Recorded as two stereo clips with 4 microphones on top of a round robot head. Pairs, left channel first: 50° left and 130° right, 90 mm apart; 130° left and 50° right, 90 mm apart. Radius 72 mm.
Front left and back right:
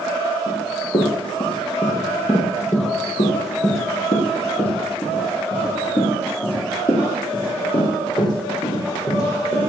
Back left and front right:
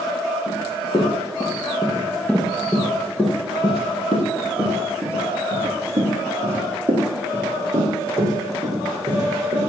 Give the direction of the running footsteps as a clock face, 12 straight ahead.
9 o'clock.